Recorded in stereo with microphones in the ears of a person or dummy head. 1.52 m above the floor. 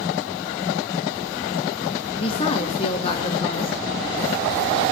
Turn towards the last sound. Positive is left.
turn(degrees=25)  # may be behind; listen again after turning